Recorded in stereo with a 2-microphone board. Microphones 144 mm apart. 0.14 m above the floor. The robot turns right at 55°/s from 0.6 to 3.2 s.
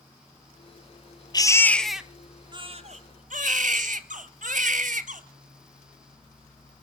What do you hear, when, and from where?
1.3 s a baby crying: 150° left, 1.0 m; by 5.2 s 110° right, 1.0 m